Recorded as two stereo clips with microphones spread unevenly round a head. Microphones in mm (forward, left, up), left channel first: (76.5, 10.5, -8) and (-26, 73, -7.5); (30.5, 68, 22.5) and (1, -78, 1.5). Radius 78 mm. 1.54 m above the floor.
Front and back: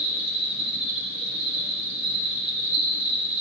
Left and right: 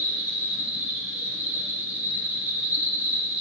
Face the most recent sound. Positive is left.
turn(degrees=175)